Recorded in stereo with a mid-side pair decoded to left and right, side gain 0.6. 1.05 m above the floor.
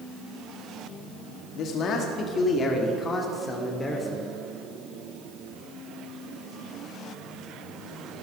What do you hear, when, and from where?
1.6 s a man speaking: 60° left, 1.6 m; by 4.3 s 20° left, 3 m